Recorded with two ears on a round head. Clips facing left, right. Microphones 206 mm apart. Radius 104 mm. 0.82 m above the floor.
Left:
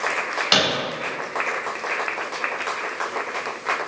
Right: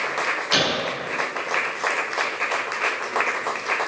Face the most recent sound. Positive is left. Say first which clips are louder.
# left 1 dB
turn(degrees=65)  # may be behind; listen again after turning